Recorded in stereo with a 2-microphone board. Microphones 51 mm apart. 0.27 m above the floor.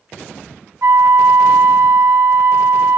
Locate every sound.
0.8 s a flute: 70° right (ahead or behind), 0.6 m